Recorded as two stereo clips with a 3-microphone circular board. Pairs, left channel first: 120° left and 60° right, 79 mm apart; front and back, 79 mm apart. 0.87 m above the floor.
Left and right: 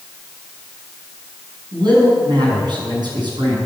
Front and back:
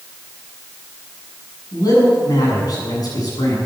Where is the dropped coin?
I don't hear a dropped coin.